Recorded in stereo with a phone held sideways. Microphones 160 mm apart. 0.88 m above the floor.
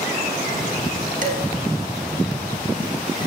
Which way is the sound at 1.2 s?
55° right (ahead or behind).